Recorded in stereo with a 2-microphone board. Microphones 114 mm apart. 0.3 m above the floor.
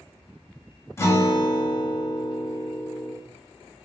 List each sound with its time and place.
1.0 s a guitar: 25° left (ahead or behind), 0.5 m